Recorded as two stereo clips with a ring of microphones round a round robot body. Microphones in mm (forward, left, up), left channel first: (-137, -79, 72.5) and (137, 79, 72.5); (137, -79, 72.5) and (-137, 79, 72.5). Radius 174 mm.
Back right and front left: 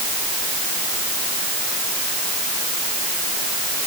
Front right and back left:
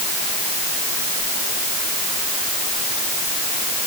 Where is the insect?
I don't hear an insect.